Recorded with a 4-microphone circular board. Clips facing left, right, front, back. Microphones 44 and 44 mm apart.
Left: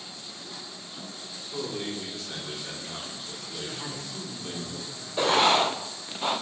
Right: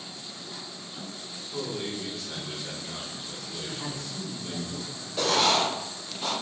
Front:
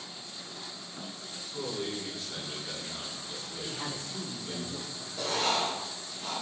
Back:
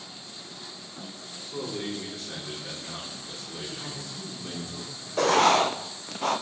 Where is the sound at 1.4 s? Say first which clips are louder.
Even, back 2 dB; 150° left, 4 m.